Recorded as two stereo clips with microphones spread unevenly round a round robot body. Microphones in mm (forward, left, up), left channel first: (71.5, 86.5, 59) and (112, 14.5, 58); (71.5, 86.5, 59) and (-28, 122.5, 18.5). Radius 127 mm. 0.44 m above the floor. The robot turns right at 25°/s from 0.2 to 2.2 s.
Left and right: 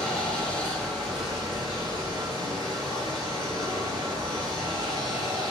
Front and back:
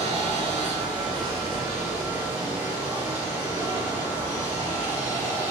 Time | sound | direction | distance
0.0 | running water | 175° right | 3 m